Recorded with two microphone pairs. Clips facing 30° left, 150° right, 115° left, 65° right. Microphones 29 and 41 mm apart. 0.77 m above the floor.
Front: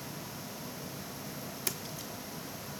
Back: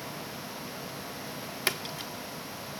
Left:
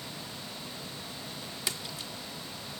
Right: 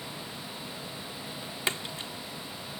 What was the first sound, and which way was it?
A splash, 115° right.